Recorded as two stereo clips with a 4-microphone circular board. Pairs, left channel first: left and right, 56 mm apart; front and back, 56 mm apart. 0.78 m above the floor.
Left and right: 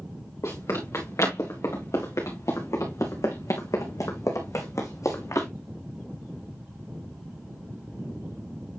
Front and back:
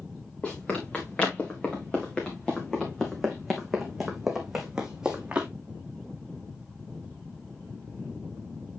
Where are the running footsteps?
65° left, 4.5 m; by 5.5 s 110° left, 2.5 m.